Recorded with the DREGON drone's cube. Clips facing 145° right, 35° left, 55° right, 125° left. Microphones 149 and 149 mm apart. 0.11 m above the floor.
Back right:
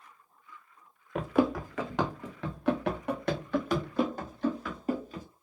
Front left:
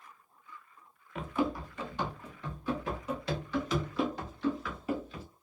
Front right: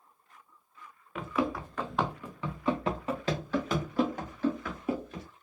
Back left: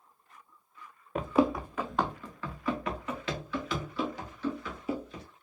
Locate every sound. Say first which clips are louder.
1.1 s running footsteps: back right 6 dB, back left 5 dB; 175° left, 0.6 m; by 5.2 s 95° right, 2 m